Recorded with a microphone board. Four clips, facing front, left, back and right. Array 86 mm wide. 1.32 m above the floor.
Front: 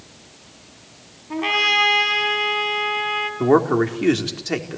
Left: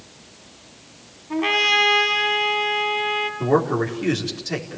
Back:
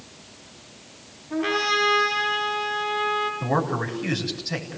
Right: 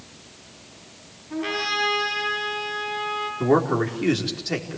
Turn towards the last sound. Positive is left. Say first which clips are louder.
# even, front 9 dB
turn(degrees=-5)